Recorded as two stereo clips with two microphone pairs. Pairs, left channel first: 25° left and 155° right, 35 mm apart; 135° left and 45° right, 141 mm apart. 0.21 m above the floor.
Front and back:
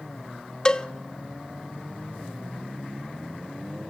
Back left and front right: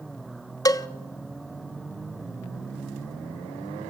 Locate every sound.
0.7 s a cowbell: 85° left, 0.6 m